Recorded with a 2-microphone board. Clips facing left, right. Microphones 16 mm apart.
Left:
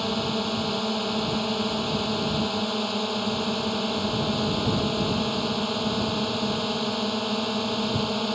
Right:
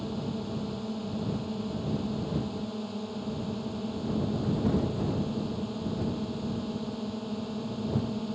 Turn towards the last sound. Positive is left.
turn(degrees=55)  # may be behind; listen again after turning